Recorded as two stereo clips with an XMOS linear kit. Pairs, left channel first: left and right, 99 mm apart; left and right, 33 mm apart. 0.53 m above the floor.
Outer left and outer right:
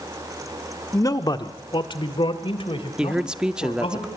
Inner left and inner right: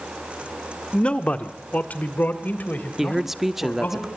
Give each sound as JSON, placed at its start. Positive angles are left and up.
{"t": 0.9, "sound": "a man speaking", "side_deg": 30, "distance_m": 1.0}
{"t": 3.0, "sound": "a man speaking", "side_deg": -10, "distance_m": 0.7}